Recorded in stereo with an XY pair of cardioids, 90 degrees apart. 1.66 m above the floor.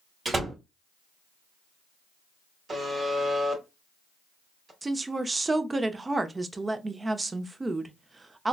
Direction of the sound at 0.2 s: 35° right.